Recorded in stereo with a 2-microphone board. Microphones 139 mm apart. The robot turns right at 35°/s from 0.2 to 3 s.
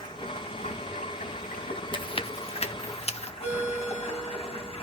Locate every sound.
0.0 s running water: 40° left, 3 m; by 4.8 s 140° left, 3 m
1.9 s chewing: 35° left (ahead or behind), 0.9 m; by 3.3 s 50° left (ahead or behind), 0.9 m
3.4 s a ringtone: 45° left (ahead or behind), 7.5 m